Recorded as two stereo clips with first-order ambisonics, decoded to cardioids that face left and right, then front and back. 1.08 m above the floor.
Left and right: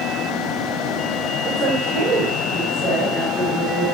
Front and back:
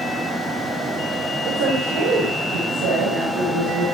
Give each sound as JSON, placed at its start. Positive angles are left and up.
{"t": 1.4, "sound": "a woman speaking", "azimuth_deg": -160, "distance_m": 3.0}